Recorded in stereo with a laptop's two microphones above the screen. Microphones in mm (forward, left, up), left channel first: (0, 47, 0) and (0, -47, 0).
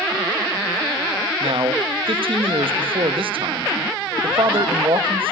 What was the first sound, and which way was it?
A man speaking, 70° right (ahead or behind).